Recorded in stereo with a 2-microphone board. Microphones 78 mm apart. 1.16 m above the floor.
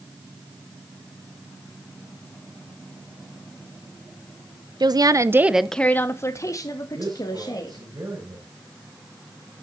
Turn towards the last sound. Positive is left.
turn(degrees=-60)  # may be behind; listen again after turning